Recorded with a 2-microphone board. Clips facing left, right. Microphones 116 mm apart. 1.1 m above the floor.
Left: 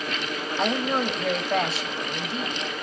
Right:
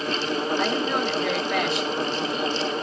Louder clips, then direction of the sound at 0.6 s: Right 1 dB; 30° left (ahead or behind).